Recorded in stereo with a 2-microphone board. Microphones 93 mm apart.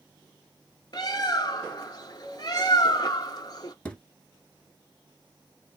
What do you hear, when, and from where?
0.9 s a bird: 45° left (ahead or behind), 0.7 m
3.9 s a thud: 15° left (ahead or behind), 0.8 m